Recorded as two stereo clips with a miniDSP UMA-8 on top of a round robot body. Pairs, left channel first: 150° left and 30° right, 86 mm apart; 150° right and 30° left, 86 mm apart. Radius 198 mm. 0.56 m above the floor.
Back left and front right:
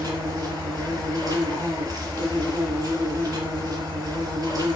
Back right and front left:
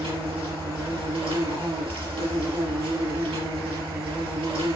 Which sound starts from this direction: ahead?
An insect, at 0.0 s.